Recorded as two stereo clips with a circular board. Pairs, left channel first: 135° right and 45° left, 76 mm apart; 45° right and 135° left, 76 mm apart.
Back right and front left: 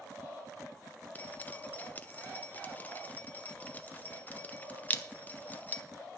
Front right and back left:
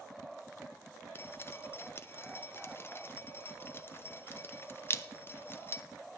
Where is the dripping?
80° right, 0.7 m.